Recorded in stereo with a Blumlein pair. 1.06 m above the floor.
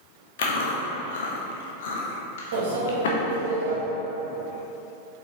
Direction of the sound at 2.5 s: 60° right.